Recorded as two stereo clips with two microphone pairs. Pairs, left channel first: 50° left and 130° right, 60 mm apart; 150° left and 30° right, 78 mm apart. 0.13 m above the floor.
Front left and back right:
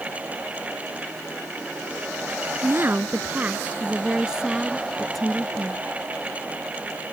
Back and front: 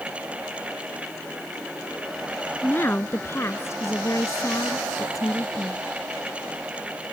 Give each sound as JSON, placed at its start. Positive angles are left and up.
{"t": 2.6, "sound": "a woman speaking", "azimuth_deg": -160}